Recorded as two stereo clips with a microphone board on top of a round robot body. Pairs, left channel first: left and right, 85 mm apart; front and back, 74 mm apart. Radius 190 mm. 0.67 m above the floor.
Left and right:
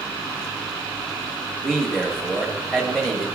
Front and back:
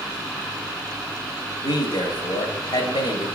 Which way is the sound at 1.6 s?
5° left.